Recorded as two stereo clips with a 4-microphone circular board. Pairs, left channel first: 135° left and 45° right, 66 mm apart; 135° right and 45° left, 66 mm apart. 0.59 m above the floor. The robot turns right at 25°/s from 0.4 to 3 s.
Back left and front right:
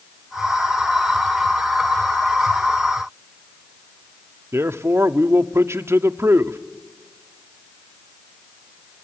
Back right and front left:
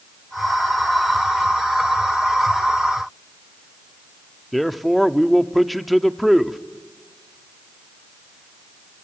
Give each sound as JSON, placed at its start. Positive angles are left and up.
{"t": 4.5, "sound": "a man speaking", "azimuth_deg": -45, "distance_m": 0.8}